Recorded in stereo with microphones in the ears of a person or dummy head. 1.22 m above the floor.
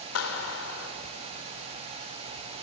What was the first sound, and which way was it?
A clap, 80° left.